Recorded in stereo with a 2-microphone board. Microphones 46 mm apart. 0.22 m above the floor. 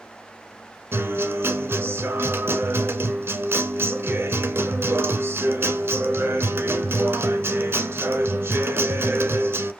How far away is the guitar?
About 0.9 m.